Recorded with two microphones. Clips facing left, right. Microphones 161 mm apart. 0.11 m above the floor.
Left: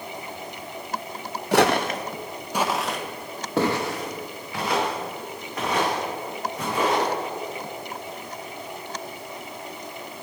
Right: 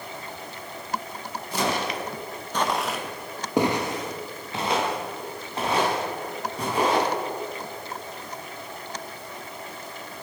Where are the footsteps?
75° left (ahead or behind), 1.1 m; by 7.1 s 30° right (ahead or behind), 6.5 m.